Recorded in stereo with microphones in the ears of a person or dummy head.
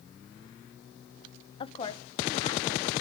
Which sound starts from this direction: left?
A woman speaking, at 1.6 s.